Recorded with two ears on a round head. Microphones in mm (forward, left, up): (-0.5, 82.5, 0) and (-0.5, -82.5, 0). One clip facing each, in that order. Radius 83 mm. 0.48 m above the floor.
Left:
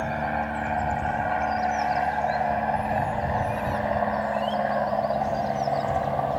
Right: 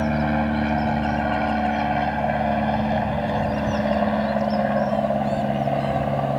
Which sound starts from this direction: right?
An aircraft, at 0.0 s.